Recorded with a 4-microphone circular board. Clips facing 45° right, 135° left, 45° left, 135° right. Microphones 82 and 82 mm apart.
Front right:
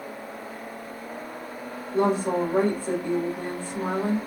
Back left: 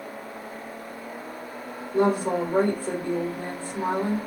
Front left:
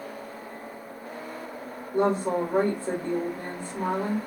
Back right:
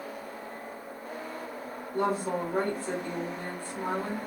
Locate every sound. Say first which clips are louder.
1.9 s a woman speaking: back left 1 dB, front left 5 dB; 85° left, 2 m